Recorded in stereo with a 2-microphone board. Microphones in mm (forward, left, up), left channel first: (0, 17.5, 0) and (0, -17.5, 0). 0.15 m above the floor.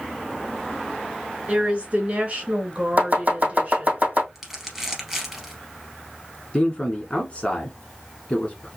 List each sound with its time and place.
1.5 s a woman speaking: 35° right (ahead or behind), 2.5 m; by 4.0 s 30° right (ahead or behind), 1.8 m
3.0 s chopping: 40° right (ahead or behind), 2.5 m
4.3 s crumpling: 5° right (ahead or behind), 1.8 m
6.5 s a man speaking: 35° left (ahead or behind), 1.6 m